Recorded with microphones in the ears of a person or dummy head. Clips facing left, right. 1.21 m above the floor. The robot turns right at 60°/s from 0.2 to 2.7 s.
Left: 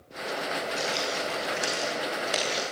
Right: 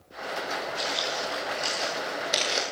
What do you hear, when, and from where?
0.8 s footsteps: 70° left (ahead or behind), 3.5 m; by 2.6 s 25° right (ahead or behind), 1.9 m